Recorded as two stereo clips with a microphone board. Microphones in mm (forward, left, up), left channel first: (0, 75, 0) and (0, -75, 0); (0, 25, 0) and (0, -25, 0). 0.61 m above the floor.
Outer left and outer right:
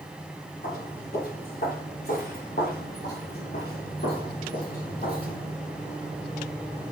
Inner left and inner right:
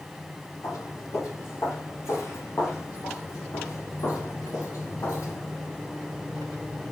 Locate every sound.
0.6 s footsteps: 80° left, 7 m; by 5.5 s 65° left (ahead or behind), 3 m